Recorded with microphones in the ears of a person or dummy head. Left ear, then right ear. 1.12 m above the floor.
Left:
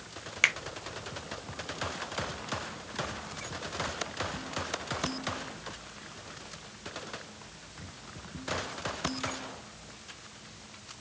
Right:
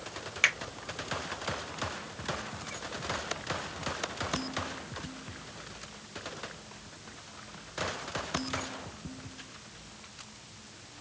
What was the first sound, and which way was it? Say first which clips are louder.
A finger snap: left 1 dB; 5° left (ahead or behind).